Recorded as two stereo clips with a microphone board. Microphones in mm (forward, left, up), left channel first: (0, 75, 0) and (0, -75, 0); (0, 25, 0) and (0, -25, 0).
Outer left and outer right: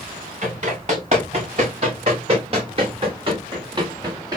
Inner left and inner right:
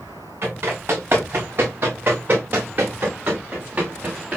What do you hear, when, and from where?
0.4 s running footsteps: 50° right (ahead or behind), 4 m; by 4.4 s 25° right (ahead or behind), 2.5 m